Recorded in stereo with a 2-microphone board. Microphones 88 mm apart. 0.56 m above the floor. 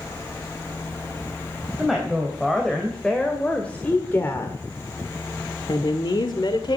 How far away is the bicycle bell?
I don't hear a bicycle bell.